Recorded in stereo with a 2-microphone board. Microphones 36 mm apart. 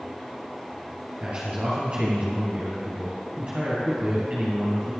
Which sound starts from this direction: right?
A man speaking, at 1.2 s.